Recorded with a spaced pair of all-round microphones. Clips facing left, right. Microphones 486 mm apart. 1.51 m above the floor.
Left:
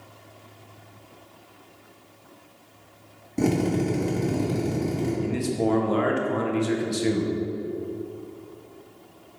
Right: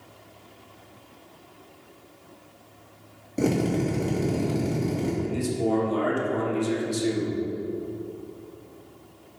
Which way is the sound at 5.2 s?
80° left.